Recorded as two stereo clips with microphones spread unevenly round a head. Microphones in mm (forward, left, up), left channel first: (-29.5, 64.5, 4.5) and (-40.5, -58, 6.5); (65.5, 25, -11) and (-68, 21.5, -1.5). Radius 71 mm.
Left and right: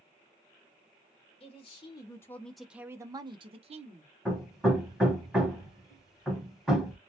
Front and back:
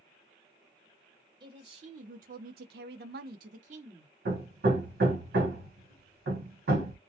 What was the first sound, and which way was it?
A man speaking, 130° left.